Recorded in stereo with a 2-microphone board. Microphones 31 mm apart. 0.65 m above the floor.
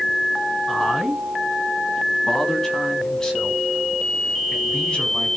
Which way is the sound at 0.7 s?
5° left (ahead or behind).